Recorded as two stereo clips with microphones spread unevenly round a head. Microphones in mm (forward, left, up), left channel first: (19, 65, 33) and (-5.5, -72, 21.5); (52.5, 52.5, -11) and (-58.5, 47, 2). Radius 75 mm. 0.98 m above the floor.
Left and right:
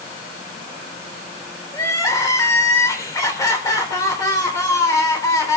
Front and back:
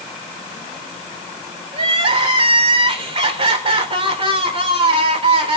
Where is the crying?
150° left, 3.5 m.